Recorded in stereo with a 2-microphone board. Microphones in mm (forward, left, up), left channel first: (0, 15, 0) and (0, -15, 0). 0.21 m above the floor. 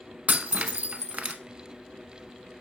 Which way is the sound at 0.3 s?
55° right (ahead or behind).